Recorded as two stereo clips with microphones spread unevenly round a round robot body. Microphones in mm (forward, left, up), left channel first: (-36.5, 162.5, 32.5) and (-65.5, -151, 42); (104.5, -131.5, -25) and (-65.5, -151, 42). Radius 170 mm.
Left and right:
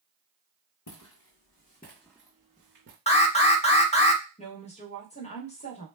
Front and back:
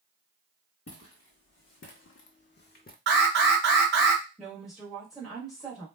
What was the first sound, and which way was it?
Footsteps, 40° left.